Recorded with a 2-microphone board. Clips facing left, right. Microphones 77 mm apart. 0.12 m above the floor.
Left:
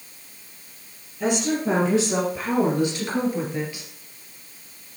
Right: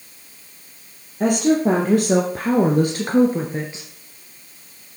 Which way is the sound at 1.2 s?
50° right (ahead or behind).